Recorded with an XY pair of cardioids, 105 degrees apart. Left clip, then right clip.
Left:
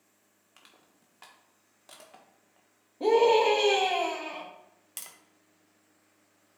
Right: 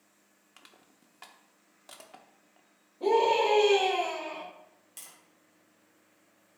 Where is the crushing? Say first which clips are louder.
Right 1 dB; 15° right, 1.2 m.